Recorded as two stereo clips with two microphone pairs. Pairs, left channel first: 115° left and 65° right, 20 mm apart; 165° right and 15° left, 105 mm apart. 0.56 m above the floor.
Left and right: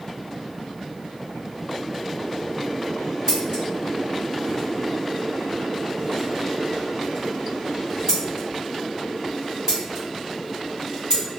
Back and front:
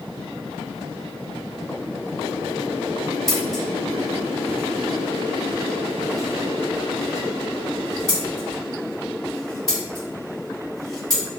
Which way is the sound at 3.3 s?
85° right.